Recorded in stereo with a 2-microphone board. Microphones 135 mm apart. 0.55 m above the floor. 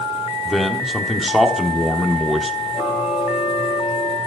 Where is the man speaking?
Centre (ahead or behind), 1.3 m.